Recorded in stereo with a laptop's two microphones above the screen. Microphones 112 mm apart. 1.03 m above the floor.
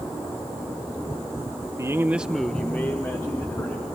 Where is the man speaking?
30° right (ahead or behind), 1.0 m; by 3.9 s 25° left (ahead or behind), 2.5 m.